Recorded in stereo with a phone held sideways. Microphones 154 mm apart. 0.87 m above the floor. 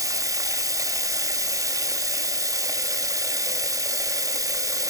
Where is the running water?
20° right (ahead or behind), 1.5 m.